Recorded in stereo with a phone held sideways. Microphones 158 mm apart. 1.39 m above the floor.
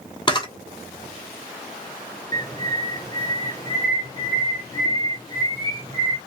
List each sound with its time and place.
0.3 s a camera shutter: 30° left (ahead or behind), 0.8 m
2.3 s a bird: 20° left (ahead or behind), 0.9 m